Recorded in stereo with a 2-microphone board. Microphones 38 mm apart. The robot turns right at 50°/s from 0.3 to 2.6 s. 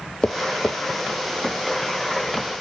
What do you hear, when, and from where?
0.2 s tapping: 35° left (ahead or behind), 0.9 m; by 0.8 s 10° left (ahead or behind), 0.9 m